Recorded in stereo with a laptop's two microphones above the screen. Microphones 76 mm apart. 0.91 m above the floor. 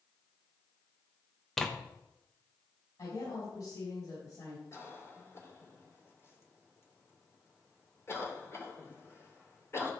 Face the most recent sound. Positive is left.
turn(degrees=35)  # may be behind; listen again after turning